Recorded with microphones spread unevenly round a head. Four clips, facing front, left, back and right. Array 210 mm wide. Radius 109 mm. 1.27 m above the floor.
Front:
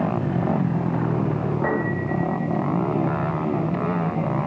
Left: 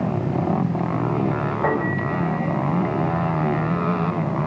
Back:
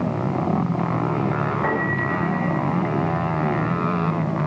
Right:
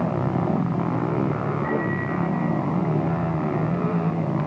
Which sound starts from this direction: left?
A piano, at 1.6 s.